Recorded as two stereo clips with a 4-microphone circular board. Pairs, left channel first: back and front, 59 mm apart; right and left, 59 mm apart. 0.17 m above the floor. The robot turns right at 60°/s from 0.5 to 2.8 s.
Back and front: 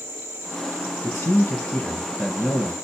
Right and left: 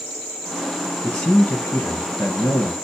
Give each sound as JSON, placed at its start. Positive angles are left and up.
{"t": 1.0, "sound": "a man speaking", "azimuth_deg": -165, "distance_m": 2.0}